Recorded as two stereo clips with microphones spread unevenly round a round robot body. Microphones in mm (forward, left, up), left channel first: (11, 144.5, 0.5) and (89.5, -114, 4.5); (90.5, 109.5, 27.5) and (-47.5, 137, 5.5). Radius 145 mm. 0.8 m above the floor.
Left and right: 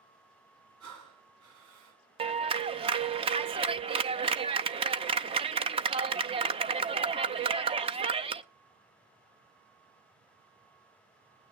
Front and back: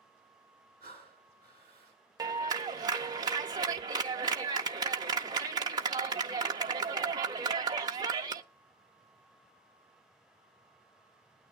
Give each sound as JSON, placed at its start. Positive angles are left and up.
{"t": 0.8, "sound": "breathing", "azimuth_deg": -110, "distance_m": 4.0}
{"t": 2.2, "sound": "a clap", "azimuth_deg": -140, "distance_m": 0.5}